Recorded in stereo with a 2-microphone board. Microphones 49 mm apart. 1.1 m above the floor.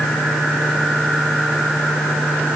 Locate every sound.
Only background noise.